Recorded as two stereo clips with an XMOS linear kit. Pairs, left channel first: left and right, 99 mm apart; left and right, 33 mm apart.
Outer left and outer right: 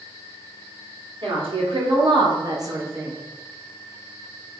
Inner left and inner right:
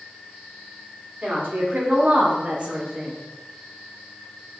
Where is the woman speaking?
65° right (ahead or behind), 1.4 m; by 3.1 s 15° right (ahead or behind), 0.7 m.